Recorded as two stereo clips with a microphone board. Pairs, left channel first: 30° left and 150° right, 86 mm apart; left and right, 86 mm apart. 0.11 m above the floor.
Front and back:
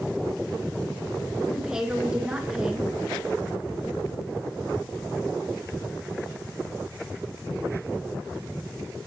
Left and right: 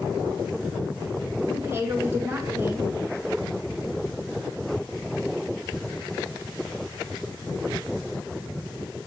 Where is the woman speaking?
80° right, 1.2 m.